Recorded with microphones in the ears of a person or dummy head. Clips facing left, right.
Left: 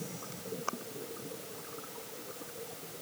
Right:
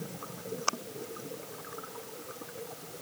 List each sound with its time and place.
Only background noise.